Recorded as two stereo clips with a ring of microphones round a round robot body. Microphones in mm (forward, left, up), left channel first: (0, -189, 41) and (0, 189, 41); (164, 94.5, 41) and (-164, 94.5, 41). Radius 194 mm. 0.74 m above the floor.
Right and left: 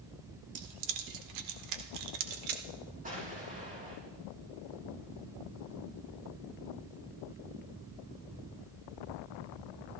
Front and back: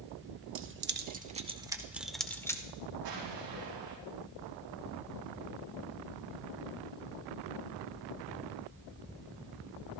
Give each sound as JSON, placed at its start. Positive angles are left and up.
{"t": 0.6, "sound": "keys jangling", "azimuth_deg": 125, "distance_m": 1.3}
{"t": 3.0, "sound": "an explosion", "azimuth_deg": 160, "distance_m": 7.0}